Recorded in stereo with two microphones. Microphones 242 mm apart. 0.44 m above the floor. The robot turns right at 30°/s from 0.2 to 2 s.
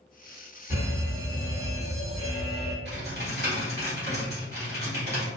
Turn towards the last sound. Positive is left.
turn(degrees=-45)  # may be behind; listen again after turning